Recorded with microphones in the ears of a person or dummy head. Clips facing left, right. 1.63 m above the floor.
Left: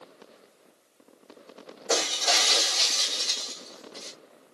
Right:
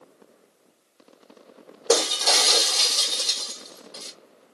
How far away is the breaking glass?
About 2 m.